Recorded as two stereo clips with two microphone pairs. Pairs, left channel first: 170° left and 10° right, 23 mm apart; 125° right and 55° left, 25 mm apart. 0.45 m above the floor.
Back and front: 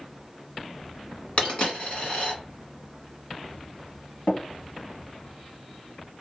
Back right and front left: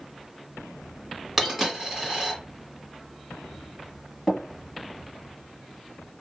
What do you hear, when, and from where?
1.4 s a dropped coin: 140° left, 1.4 m
4.3 s tapping: 175° left, 1.2 m